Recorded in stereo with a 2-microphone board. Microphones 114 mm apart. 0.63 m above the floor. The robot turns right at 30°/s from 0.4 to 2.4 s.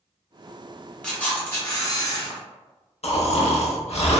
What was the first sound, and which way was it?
A camera shutter, 10° left.